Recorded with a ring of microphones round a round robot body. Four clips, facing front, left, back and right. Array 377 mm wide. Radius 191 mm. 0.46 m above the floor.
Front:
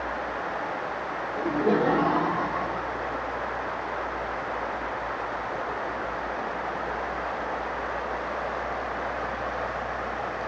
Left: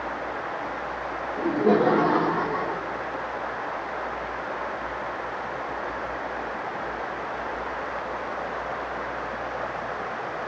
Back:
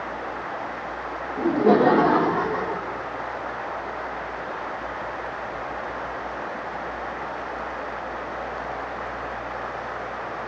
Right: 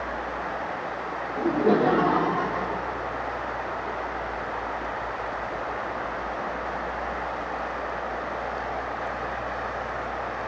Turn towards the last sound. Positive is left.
turn(degrees=170)